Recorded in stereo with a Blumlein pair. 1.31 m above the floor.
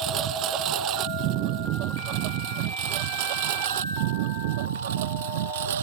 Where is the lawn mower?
35° right; by 5.8 s 55° right.